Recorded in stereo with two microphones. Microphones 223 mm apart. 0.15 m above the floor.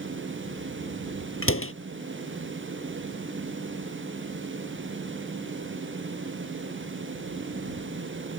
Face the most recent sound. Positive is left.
turn(degrees=70)  # may be behind; listen again after turning